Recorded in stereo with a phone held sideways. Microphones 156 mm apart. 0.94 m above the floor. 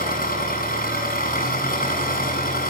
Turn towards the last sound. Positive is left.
turn(degrees=70)  # may be behind; listen again after turning